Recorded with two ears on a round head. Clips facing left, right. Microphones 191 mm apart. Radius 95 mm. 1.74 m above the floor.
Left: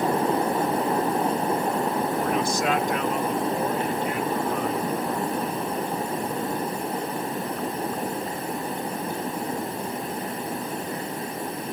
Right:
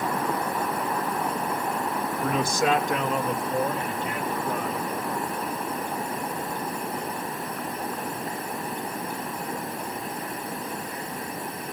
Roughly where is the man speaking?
Right.